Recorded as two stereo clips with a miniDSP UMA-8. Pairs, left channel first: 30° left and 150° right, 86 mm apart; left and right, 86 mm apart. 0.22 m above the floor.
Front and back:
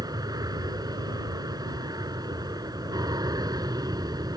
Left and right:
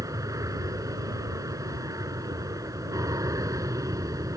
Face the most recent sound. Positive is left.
turn(degrees=-125)